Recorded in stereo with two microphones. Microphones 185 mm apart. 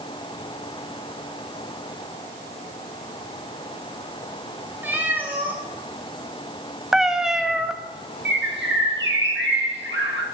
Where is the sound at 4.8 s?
10° right (ahead or behind), 2.5 m.